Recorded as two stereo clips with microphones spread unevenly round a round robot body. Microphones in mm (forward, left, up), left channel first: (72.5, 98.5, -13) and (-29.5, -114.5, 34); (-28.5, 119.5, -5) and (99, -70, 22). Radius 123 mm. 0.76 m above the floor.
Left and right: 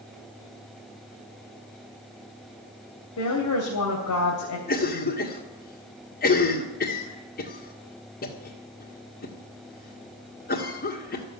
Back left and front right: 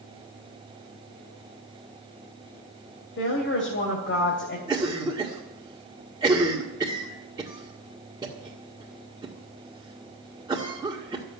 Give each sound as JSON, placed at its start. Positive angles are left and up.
{"t": 3.2, "sound": "a woman speaking", "azimuth_deg": 90, "distance_m": 3.0}
{"t": 4.7, "sound": "a cough", "azimuth_deg": 20, "distance_m": 1.8}